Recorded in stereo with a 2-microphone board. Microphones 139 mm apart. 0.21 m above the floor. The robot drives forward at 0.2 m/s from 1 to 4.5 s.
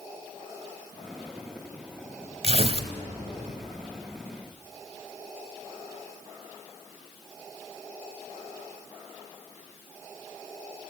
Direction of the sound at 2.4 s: 55° right (ahead or behind).